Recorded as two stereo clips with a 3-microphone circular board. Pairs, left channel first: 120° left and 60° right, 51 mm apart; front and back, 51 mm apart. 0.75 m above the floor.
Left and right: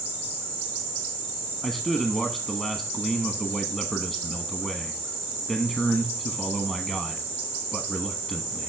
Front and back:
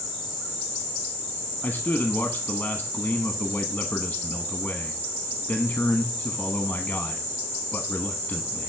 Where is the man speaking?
45° left, 0.8 m.